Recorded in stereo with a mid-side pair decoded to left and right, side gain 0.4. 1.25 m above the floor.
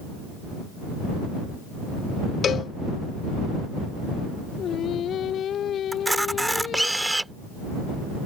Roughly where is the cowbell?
Ahead left.